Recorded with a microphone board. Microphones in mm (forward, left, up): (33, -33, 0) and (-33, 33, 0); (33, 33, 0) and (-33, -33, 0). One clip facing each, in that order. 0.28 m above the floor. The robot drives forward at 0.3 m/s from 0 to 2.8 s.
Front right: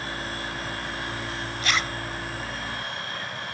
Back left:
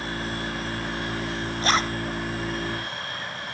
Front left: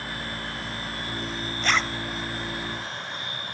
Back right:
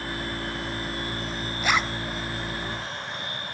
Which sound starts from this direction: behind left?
A zipper, at 1.6 s.